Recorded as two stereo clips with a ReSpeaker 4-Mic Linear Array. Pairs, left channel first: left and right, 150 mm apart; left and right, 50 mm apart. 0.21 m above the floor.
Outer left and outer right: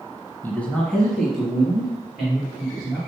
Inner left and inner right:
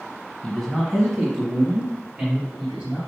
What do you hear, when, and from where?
0.4 s a man speaking: 15° left (ahead or behind), 1.1 m; by 3.0 s 5° right (ahead or behind), 4 m